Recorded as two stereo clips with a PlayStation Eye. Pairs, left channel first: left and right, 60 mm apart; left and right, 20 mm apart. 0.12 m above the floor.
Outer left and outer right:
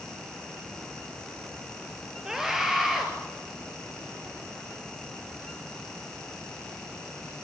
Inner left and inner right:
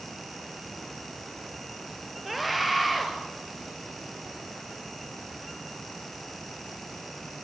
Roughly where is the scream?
Centre.